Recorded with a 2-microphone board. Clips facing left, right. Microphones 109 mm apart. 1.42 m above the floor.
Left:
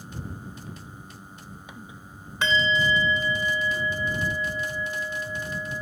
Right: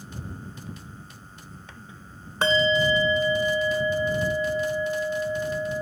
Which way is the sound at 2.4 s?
40° right (ahead or behind).